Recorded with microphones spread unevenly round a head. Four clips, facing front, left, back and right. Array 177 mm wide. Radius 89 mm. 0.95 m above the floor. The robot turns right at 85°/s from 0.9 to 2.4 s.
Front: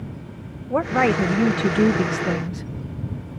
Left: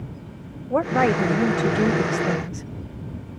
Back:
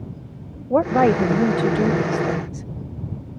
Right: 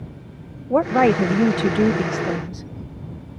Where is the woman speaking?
135° right; by 2.7 s 5° right.